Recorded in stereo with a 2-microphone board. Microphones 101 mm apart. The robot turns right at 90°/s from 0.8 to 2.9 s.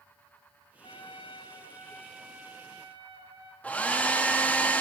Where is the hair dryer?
15° left (ahead or behind), 0.7 m.